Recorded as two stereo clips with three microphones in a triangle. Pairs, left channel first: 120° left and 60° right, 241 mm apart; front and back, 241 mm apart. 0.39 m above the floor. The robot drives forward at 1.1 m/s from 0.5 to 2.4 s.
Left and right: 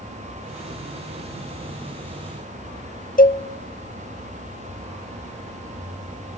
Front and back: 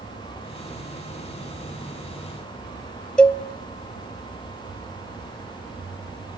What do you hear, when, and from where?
3.2 s a cowbell: 85° left, 0.8 m